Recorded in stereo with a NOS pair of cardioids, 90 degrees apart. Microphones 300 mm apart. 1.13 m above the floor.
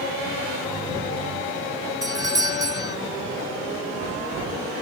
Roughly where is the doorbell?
Ahead.